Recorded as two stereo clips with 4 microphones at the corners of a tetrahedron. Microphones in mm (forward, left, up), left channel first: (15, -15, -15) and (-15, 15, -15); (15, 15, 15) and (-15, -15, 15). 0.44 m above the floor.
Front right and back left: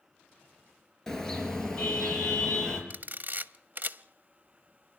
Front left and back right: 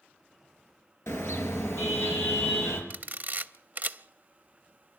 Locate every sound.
1.1 s a car horn: 35° left, 4 m; by 2.8 s 30° left, 5.5 m
2.9 s a camera shutter: straight behind, 0.5 m